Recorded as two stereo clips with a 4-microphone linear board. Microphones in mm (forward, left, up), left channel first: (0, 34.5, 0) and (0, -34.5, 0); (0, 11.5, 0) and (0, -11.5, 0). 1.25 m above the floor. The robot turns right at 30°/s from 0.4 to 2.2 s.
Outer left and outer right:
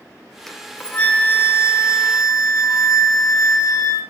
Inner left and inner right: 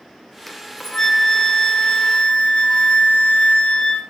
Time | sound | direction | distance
0.5 | a flute | 5° left | 0.7 m